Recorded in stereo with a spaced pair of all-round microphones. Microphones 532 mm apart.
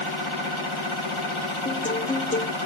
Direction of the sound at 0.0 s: 60° left (ahead or behind).